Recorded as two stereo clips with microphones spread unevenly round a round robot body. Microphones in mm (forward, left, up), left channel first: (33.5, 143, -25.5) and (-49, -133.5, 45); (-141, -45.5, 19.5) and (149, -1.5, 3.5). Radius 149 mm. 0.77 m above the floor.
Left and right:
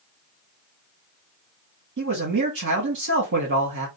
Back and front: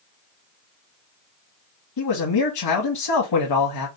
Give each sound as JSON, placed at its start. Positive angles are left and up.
{"t": 2.0, "sound": "a man speaking", "azimuth_deg": -160, "distance_m": 1.5}